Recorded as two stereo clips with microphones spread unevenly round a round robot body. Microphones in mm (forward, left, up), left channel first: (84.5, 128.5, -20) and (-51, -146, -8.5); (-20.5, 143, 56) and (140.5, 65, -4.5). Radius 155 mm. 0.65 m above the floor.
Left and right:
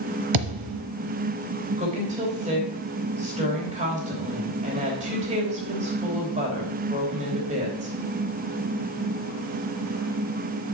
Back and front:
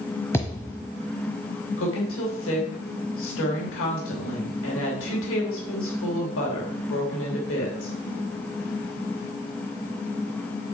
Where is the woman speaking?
175° left, 3 m.